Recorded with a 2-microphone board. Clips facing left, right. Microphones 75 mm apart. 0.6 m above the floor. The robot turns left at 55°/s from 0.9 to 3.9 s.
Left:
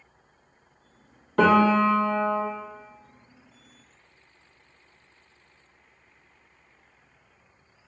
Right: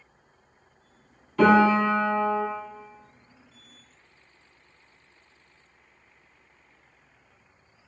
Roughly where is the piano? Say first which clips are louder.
Even; left.